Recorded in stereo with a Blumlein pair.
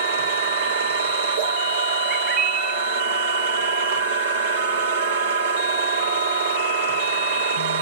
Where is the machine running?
60° right, 1.4 m.